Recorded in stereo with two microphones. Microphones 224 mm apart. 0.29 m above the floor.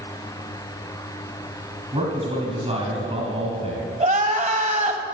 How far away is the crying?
About 1.0 m.